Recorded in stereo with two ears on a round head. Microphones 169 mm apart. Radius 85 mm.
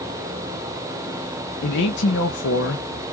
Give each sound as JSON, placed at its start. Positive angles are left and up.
{"t": 1.6, "sound": "a man speaking", "side_deg": 60, "distance_m": 1.4}